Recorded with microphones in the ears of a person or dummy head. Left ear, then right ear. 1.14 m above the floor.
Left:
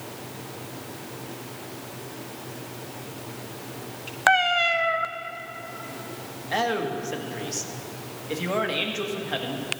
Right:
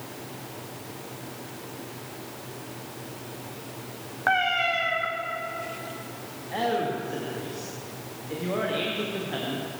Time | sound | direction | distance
4.3 | a cat meowing | 40° left (ahead or behind) | 0.6 m
6.5 | a man speaking | 75° left (ahead or behind) | 1.7 m